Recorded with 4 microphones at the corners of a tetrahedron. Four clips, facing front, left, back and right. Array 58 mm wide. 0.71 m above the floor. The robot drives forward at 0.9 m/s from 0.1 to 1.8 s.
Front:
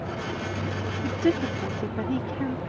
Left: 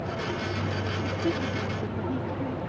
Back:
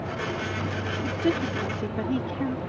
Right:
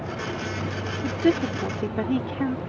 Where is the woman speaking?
65° right; by 2.6 s 90° right.